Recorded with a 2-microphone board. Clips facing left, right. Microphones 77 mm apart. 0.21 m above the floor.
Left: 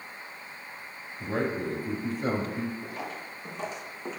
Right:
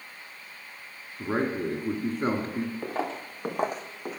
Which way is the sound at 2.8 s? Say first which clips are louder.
Right 6 dB; 75° right (ahead or behind).